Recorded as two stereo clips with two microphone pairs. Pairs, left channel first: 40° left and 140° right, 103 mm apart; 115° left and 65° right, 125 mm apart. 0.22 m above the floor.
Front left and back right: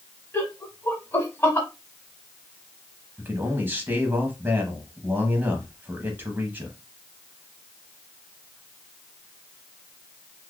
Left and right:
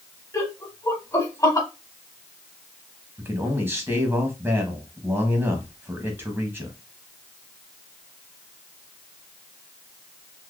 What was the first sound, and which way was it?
Laughter, 80° left.